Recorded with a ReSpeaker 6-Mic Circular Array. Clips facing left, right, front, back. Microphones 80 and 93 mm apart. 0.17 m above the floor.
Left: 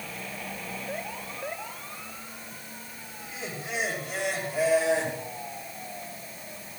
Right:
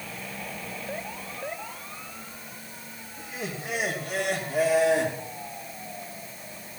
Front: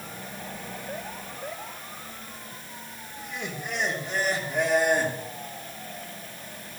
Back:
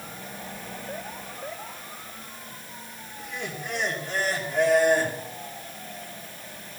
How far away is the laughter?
About 6 m.